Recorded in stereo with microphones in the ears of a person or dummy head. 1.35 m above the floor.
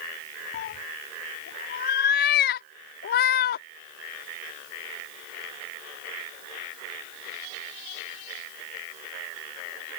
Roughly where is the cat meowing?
Left.